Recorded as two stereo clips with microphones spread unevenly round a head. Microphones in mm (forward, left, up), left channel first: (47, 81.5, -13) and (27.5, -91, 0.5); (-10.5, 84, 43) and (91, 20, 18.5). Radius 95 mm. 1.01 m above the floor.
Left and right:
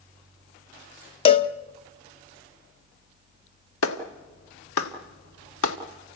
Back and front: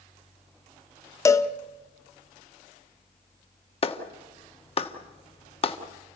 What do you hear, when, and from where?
1.2 s a cowbell: 130° left, 0.6 m
3.8 s a clap: 105° left, 1.6 m